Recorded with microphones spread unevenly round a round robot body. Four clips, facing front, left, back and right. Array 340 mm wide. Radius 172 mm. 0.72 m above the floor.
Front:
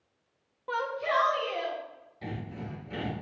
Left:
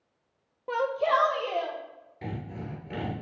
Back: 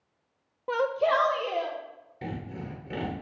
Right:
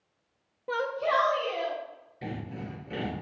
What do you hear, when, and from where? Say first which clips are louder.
0.7 s a shout: left 2 dB, back 5 dB; 165° right, 0.6 m; by 1.8 s 155° left, 2 m
2.2 s sawing: even, back 2 dB; 175° right, 3 m